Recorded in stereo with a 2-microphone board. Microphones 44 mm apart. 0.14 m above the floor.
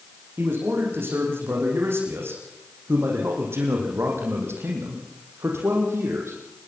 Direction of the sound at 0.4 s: 55° right (ahead or behind).